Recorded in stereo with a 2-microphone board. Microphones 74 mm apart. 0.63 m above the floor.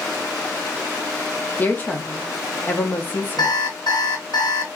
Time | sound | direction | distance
1.6 | a woman speaking | 25° left (ahead or behind) | 0.8 m
3.4 | an alarm clock | 75° left (ahead or behind) | 1.1 m